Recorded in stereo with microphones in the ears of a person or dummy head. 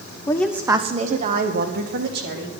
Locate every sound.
0.3 s a woman speaking: 20° left (ahead or behind), 0.8 m; by 2.5 s 65° right (ahead or behind), 3 m